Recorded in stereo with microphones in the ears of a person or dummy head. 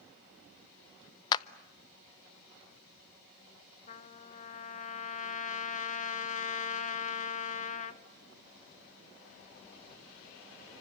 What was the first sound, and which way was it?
A clap, 25° left (ahead or behind).